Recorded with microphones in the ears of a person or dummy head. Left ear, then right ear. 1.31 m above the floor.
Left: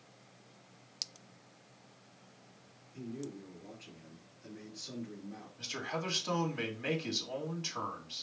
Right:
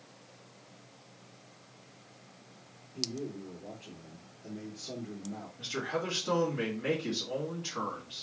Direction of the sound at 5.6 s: 45° left (ahead or behind).